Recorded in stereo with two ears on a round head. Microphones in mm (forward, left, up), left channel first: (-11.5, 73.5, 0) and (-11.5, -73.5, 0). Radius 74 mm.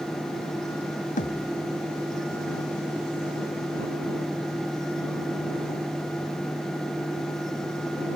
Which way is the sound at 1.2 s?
50° left (ahead or behind).